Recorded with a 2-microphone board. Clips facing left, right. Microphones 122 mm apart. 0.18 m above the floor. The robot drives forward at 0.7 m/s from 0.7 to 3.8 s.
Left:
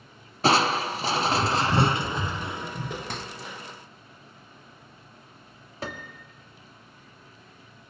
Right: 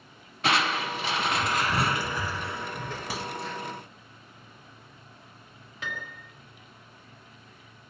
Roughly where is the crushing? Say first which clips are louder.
Left 5 dB; left.